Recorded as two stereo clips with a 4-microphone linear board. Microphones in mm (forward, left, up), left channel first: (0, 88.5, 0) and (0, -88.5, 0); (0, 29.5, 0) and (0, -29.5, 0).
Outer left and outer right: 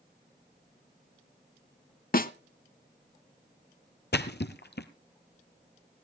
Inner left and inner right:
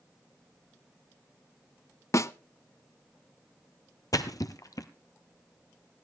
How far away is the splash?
About 1.1 m.